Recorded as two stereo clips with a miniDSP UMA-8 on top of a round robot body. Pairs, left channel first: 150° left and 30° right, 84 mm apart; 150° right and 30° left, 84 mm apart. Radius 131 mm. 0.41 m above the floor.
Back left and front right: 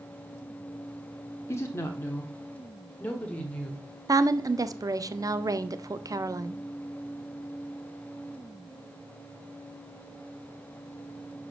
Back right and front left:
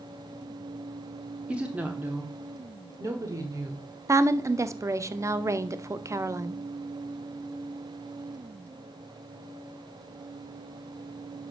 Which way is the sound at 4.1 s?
10° right.